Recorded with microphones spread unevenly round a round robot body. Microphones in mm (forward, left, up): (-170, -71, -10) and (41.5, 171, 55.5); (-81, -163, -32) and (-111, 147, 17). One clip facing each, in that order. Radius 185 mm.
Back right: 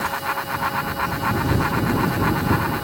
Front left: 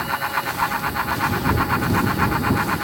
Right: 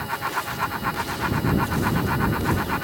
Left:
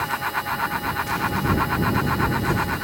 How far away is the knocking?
No knocking in this recording.